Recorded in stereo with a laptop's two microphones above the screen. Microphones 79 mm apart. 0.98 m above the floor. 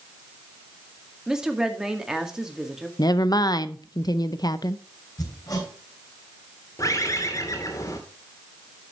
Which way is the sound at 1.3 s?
10° right (ahead or behind).